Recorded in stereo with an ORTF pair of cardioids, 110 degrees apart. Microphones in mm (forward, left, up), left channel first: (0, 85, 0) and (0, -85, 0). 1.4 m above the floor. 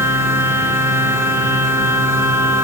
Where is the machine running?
15° right, 4.5 m.